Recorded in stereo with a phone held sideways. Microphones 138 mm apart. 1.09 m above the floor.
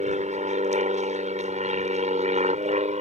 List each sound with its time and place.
0.0 s an aircraft: 55° right (ahead or behind)